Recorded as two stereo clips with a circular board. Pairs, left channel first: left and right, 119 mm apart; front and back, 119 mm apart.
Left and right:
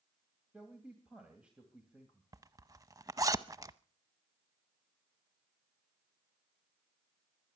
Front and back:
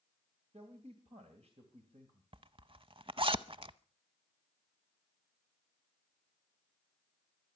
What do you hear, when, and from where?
0.5 s a man speaking: 170° right, 2.5 m
2.3 s a zipper: 145° right, 0.6 m